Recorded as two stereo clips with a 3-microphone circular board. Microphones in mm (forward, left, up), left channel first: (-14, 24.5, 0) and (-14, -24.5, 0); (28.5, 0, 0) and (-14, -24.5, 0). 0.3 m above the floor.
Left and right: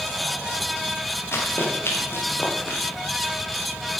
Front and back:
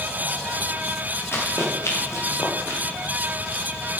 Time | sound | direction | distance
1.3 | running footsteps | 60° left | 4 m